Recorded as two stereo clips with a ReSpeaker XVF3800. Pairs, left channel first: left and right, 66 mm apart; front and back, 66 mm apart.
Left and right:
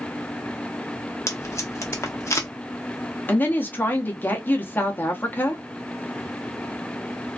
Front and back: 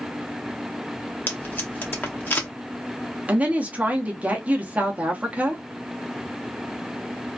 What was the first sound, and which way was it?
Tape being pulled, 55° left.